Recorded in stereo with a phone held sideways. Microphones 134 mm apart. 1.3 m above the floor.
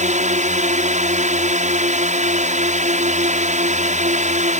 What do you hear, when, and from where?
0.0 s a drone: 65° right (ahead or behind)